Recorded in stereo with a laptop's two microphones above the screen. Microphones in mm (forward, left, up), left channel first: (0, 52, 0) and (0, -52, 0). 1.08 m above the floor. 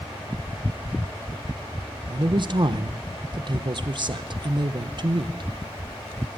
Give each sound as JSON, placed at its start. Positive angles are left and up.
{"t": 2.1, "sound": "a man speaking", "side_deg": -45, "distance_m": 0.6}